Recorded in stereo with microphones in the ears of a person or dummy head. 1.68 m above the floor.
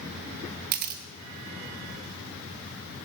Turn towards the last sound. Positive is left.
turn(degrees=-55)  # may be behind; listen again after turning